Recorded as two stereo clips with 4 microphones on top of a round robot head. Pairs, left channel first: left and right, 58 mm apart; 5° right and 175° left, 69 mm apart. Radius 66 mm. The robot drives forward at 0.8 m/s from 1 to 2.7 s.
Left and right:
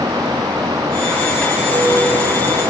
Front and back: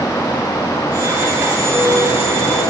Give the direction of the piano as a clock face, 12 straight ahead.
1 o'clock.